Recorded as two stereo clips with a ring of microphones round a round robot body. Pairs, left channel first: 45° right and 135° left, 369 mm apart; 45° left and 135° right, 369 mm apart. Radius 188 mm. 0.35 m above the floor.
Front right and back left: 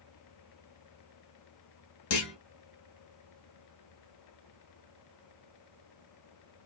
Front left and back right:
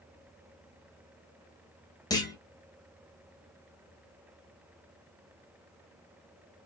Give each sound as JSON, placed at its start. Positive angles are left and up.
{"t": 2.1, "sound": "a clunk", "azimuth_deg": -30, "distance_m": 1.1}